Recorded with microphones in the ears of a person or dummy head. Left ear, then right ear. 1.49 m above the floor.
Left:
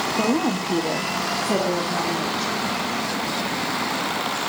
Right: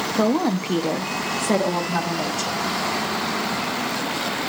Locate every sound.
0.2 s a woman speaking: 50° right (ahead or behind), 1.1 m